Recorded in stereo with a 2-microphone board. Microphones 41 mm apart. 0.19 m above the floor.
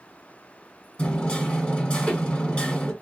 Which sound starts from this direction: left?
Hammering, at 1.0 s.